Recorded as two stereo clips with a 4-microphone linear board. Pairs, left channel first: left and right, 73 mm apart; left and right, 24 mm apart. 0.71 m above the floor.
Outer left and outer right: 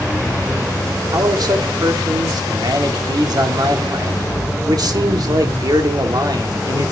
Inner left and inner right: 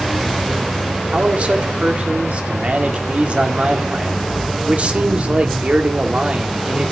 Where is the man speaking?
60° right (ahead or behind), 1.8 m.